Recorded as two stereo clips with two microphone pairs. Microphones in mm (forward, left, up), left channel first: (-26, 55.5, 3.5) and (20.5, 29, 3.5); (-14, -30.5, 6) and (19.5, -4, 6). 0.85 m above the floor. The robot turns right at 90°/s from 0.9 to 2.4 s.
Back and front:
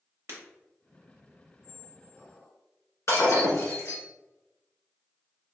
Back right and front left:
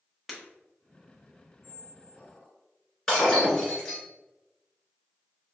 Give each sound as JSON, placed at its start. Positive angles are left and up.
{"t": 0.3, "sound": "breaking glass", "azimuth_deg": -55, "distance_m": 1.0}
{"t": 1.6, "sound": "a squeak", "azimuth_deg": 60, "distance_m": 1.7}
{"t": 3.1, "sound": "breaking glass", "azimuth_deg": 135, "distance_m": 1.5}